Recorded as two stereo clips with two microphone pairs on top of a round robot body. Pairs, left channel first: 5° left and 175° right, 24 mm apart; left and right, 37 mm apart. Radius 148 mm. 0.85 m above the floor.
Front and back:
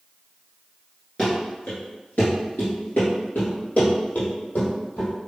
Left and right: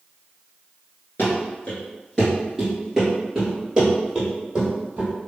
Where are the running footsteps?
80° left, 0.9 m; by 5.1 s 25° right, 1.9 m.